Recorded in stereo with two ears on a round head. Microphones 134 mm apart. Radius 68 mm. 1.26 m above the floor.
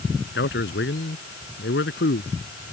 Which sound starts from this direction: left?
A man speaking, at 0.3 s.